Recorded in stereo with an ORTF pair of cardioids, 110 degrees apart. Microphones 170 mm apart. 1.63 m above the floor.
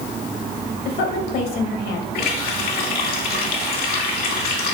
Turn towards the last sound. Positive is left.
turn(degrees=55)